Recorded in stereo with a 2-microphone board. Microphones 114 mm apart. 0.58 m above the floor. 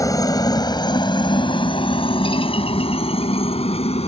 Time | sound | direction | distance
0.0 | a helicopter | 30° left (ahead or behind) | ?